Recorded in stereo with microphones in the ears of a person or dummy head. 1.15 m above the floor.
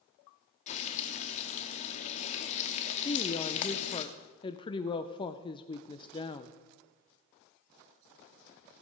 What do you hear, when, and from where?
0.7 s frying: 40° left (ahead or behind), 0.8 m
3.0 s a woman speaking: 25° left (ahead or behind), 0.5 m